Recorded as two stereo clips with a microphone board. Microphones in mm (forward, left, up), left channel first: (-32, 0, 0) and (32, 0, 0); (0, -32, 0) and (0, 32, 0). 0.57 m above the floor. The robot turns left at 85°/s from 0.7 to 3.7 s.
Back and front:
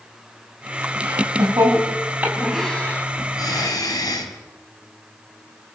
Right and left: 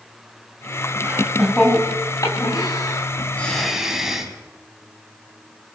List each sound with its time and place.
1.0 s laughter: 40° left, 4.5 m; by 4.3 s 175° left, 4.5 m